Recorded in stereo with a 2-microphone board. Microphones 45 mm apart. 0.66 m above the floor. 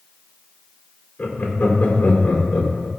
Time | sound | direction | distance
1.2 | laughter | 50° left (ahead or behind) | 1.9 m